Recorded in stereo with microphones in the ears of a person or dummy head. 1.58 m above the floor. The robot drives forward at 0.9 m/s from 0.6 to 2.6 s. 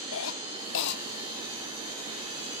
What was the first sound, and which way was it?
A cough, 75° left (ahead or behind).